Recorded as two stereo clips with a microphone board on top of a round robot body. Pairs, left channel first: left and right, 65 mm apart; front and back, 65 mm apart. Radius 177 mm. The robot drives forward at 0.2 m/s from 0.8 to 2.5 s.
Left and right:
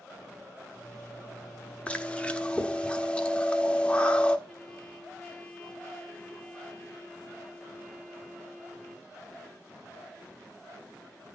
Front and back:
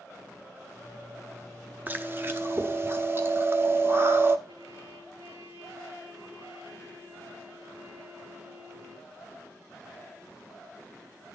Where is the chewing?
145° left, 0.9 m; by 4.4 s 150° left, 0.9 m.